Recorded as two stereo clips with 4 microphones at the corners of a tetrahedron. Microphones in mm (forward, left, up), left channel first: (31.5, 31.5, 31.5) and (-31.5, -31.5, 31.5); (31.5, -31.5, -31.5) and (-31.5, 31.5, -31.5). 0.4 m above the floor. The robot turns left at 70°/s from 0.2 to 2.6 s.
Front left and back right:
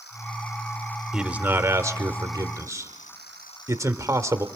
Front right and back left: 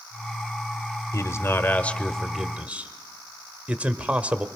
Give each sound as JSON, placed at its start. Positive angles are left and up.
{"t": 1.1, "sound": "a man speaking", "azimuth_deg": -55, "distance_m": 1.1}